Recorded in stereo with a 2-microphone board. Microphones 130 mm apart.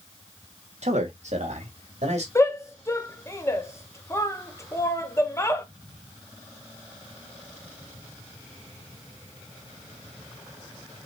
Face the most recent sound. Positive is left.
turn(degrees=20)  # may be behind; listen again after turning